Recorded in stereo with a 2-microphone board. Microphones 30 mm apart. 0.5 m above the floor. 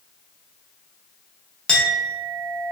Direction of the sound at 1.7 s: 30° left (ahead or behind).